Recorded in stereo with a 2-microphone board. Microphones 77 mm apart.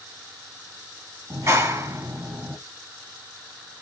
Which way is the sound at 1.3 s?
35° right (ahead or behind).